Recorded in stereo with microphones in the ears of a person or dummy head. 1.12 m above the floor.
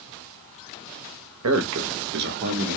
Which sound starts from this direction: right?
A man speaking, at 1.4 s.